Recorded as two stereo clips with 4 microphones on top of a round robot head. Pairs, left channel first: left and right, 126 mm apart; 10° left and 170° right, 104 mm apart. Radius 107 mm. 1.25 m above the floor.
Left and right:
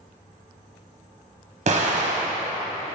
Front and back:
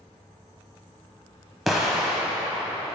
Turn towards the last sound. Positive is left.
turn(degrees=-80)